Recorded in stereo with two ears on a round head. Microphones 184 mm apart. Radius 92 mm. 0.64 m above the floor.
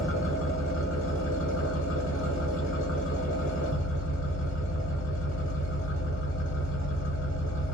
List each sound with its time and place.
0.0 s an engine running: 70° left (ahead or behind), 1.3 m